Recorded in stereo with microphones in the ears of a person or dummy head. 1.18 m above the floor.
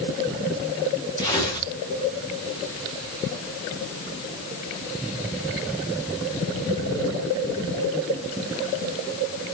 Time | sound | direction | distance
1.2 | tearing paper | 20° left (ahead or behind) | 4.5 m